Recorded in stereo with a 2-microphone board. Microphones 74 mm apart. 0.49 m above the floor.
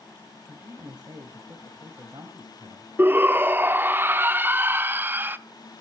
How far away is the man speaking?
About 2.5 m.